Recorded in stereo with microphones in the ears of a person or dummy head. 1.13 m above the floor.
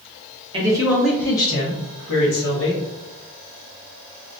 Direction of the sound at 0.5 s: 25° right (ahead or behind).